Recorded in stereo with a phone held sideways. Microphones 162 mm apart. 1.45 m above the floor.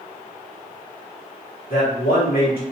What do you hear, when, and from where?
1.7 s a man speaking: 75° left (ahead or behind), 1.3 m